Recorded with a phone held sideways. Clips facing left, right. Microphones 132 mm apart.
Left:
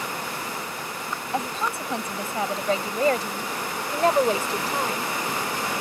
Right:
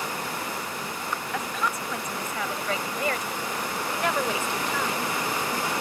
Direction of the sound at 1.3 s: 30° left (ahead or behind).